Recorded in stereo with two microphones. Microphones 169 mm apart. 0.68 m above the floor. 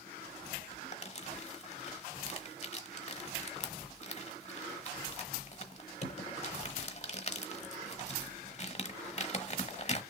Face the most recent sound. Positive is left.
turn(degrees=40)  # may be behind; listen again after turning